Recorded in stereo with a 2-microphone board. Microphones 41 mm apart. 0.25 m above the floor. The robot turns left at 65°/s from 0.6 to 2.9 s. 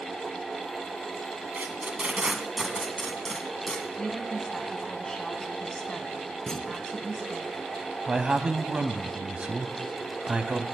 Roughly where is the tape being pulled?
Right.